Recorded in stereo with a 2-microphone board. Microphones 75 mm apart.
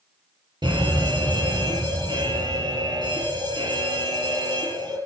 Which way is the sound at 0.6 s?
70° right (ahead or behind).